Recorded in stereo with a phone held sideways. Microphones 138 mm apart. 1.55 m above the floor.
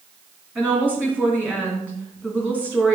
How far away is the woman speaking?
About 3 m.